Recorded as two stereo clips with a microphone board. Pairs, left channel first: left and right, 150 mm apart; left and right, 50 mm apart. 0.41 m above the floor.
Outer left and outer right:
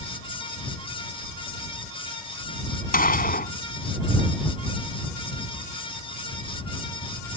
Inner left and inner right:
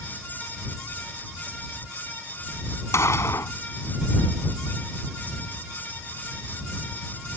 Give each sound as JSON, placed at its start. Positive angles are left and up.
{"t": 2.9, "sound": "a gunshot", "side_deg": 75}